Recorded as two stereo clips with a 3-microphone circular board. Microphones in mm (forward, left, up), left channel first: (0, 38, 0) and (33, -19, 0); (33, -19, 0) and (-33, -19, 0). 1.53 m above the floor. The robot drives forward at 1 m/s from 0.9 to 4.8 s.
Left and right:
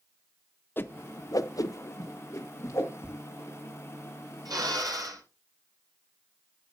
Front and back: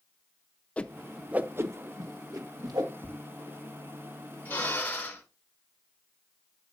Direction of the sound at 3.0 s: 10° right.